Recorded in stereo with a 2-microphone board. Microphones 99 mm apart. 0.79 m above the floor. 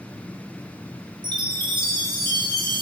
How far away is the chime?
About 0.9 m.